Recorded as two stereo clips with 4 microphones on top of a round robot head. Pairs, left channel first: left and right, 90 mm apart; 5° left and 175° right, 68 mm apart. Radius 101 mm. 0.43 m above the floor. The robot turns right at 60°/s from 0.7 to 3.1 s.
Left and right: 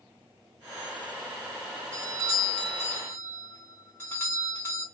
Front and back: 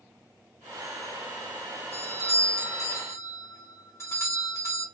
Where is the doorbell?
40° right, 2.5 m; by 4.8 s 30° left, 2.5 m.